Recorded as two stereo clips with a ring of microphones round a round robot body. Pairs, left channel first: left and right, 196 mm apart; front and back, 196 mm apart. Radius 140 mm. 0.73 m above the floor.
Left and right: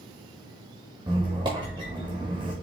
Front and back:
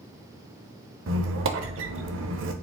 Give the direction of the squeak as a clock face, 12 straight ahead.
5 o'clock.